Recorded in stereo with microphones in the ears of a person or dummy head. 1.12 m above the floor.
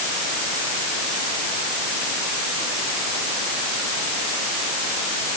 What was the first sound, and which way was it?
Only background noise.